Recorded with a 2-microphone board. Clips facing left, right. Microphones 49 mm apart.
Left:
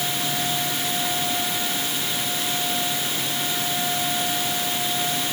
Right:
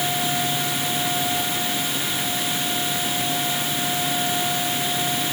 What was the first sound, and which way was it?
Only background noise.